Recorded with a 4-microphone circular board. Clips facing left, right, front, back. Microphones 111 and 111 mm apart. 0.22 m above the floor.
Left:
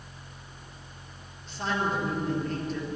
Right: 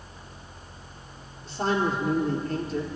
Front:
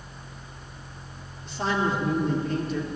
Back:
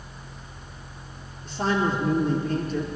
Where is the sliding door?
I don't hear a sliding door.